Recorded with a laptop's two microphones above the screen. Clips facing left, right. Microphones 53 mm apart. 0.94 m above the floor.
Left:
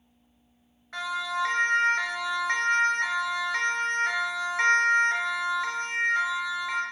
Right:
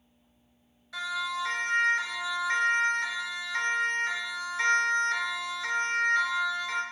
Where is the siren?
45° left (ahead or behind), 4 m; by 6.8 s 15° left (ahead or behind), 3 m.